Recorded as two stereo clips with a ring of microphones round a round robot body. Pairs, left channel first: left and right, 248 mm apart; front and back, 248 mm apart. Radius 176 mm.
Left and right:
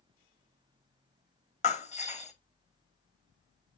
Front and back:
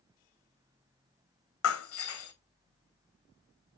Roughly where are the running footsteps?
No running footsteps in this recording.